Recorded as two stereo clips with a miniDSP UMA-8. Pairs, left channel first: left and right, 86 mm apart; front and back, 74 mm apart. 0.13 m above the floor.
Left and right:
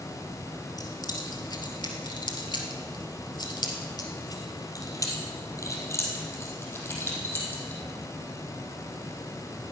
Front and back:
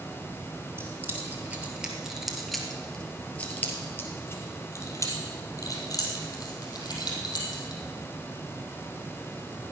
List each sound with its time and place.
0.8 s keys jangling: 125° left, 2.5 m; by 7.8 s 25° left, 4.5 m